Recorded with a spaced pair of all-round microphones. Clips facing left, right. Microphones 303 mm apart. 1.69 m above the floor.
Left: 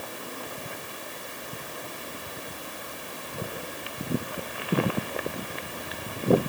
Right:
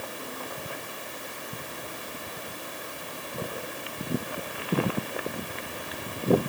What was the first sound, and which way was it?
Only background noise.